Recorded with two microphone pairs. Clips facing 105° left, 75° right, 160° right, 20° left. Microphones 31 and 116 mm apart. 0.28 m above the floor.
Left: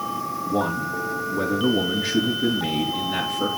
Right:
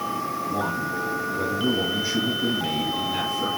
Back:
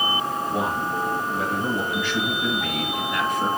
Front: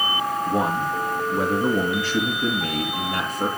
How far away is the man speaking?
About 4 m.